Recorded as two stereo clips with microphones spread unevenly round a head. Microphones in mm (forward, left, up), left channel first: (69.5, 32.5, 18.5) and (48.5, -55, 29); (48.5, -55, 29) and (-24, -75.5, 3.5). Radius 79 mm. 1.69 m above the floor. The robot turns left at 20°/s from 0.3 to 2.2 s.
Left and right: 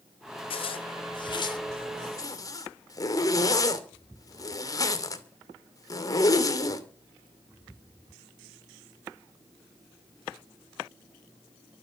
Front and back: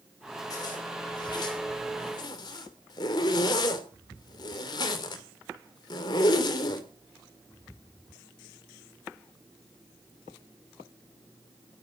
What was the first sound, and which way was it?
A zipper, 60° left.